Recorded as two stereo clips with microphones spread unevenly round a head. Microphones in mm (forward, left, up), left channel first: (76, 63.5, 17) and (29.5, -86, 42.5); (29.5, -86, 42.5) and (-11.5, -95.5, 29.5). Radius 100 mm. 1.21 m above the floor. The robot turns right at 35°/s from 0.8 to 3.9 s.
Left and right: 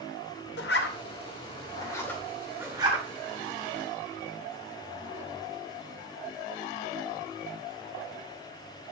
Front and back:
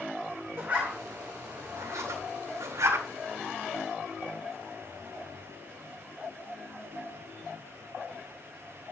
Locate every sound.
0.6 s a zipper: 110° left, 2.5 m; by 3.0 s 170° right, 2.5 m